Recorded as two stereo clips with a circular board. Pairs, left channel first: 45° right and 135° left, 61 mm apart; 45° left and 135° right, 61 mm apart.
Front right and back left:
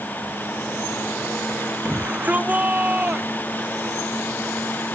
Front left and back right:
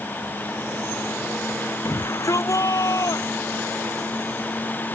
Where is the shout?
75° left.